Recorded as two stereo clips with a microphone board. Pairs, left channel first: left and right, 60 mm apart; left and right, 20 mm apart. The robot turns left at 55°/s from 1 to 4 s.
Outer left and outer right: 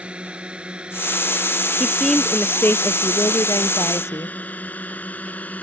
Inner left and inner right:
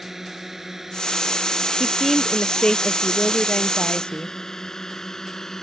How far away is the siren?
No siren in this recording.